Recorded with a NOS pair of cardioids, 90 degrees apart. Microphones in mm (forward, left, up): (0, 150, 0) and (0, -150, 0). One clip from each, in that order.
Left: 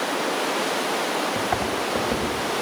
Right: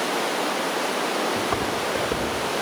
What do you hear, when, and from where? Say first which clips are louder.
1.4 s footsteps: even; 10° right, 10 m